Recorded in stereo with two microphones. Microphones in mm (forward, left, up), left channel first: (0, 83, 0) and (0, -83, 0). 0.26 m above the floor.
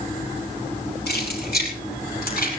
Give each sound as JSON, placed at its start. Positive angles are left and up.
{"t": 1.1, "sound": "keys jangling", "side_deg": 80, "distance_m": 5.0}